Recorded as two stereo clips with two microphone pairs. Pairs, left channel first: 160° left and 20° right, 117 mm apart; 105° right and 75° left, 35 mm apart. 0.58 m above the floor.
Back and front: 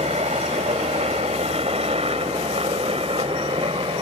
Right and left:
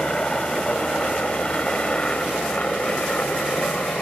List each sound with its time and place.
0.0 s a helicopter: 35° right; by 4.0 s 55° right